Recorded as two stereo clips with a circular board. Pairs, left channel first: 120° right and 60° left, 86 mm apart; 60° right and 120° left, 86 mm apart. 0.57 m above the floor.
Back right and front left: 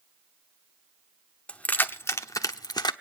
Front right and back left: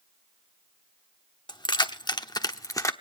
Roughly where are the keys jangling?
Ahead right.